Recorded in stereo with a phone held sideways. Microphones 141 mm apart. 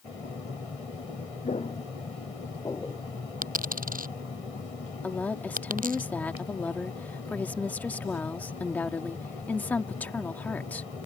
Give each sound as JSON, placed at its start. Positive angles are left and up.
{"t": 1.4, "sound": "footsteps", "side_deg": 50}
{"t": 3.4, "sound": "a dropped coin", "side_deg": -85}
{"t": 5.0, "sound": "a woman speaking", "side_deg": 10}